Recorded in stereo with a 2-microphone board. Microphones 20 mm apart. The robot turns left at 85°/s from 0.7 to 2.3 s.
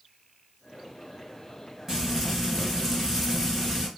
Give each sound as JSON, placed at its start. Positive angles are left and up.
{"t": 1.9, "sound": "frying", "azimuth_deg": -155, "distance_m": 1.7}